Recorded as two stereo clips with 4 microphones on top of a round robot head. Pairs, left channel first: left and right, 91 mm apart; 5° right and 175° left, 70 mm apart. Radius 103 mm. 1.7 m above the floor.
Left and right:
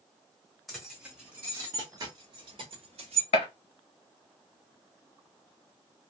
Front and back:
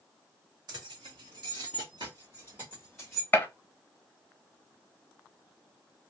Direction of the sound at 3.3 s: 55° left.